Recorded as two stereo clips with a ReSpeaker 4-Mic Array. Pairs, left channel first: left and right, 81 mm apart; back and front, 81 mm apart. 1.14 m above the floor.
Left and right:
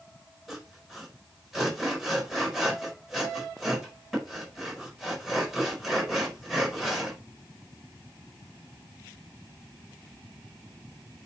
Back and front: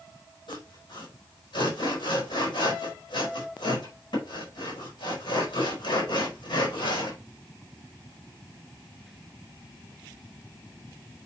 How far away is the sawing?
About 4.5 m.